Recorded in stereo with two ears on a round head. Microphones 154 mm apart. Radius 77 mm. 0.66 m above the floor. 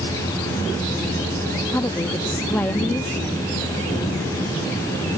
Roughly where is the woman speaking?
Centre.